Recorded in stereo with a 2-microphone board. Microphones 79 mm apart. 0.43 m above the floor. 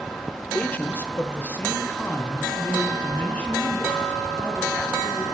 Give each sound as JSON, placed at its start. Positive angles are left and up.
{"t": 0.5, "sound": "a man speaking", "side_deg": 20, "distance_m": 0.9}